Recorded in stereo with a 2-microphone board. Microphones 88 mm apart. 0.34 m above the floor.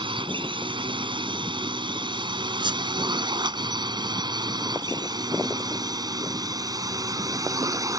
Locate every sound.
0.0 s a drone: 65° right (ahead or behind); by 8.0 s 40° right (ahead or behind)
2.6 s a squeak: 60° right (ahead or behind)